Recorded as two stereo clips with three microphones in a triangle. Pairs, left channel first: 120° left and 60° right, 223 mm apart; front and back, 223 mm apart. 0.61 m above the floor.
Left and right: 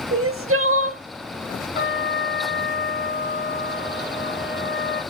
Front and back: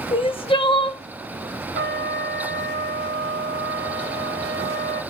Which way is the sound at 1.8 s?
155° left.